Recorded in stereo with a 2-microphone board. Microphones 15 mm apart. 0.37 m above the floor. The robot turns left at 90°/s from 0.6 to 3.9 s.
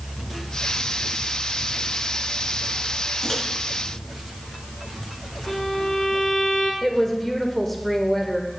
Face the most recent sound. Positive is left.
turn(degrees=20)  # may be behind; listen again after turning